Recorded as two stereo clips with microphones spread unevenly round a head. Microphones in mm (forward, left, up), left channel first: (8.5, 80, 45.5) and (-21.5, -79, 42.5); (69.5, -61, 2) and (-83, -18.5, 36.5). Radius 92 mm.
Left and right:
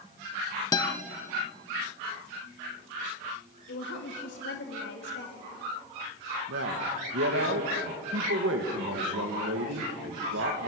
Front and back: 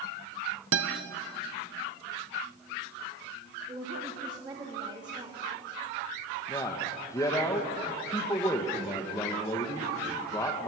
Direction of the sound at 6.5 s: 90° right.